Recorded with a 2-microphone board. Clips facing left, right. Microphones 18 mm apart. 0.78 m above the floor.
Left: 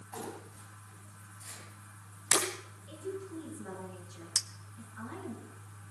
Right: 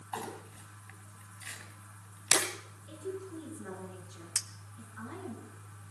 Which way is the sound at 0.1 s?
80° right.